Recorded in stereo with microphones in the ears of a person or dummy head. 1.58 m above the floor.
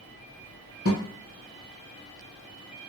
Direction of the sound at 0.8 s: Centre (ahead or behind).